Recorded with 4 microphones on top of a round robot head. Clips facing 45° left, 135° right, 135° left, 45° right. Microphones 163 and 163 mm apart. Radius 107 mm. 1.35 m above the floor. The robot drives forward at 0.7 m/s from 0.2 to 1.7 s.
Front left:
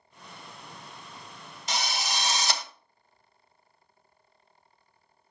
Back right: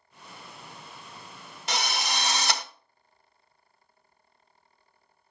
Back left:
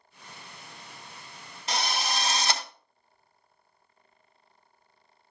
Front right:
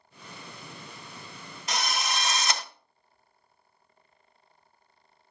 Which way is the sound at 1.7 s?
165° right.